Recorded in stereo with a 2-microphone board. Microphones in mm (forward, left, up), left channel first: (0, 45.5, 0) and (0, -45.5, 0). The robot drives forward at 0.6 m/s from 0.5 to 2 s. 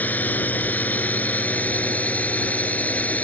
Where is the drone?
20° left (ahead or behind); by 3.2 s 15° left (ahead or behind).